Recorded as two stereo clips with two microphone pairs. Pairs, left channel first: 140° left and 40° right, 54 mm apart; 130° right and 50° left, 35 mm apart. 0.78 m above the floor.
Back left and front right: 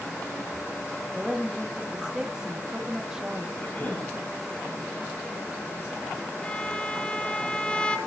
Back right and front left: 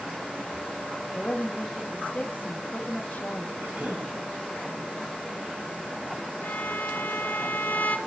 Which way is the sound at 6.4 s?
150° right.